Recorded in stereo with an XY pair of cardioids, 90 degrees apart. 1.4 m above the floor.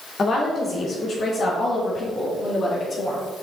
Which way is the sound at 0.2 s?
40° left.